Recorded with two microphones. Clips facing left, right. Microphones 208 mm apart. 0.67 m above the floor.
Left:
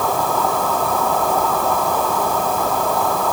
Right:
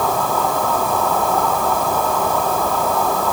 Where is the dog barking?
No dog barking in this recording.